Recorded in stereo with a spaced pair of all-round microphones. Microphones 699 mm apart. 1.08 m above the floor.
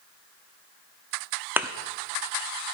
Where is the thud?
5° right (ahead or behind), 0.7 m.